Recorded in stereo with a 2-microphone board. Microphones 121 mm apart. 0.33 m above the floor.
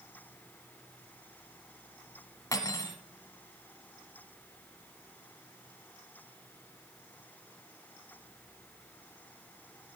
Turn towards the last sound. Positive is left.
turn(degrees=30)  # may be behind; listen again after turning